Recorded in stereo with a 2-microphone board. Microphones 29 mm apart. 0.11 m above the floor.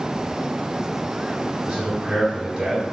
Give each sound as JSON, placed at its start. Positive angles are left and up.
{"t": 1.7, "sound": "a man speaking", "side_deg": -30, "distance_m": 2.0}